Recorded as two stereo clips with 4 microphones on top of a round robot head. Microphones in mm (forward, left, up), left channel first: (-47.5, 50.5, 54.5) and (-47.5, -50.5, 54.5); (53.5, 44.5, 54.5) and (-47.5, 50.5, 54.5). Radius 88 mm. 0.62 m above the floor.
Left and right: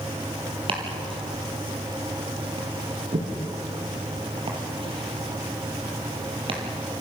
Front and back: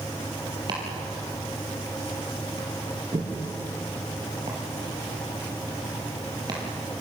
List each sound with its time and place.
0.7 s chopping: 120° right, 4.5 m